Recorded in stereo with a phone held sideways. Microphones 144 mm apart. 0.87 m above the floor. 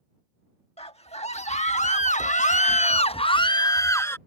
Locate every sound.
0.8 s a scream: 45° left (ahead or behind); by 4.2 s 15° left (ahead or behind)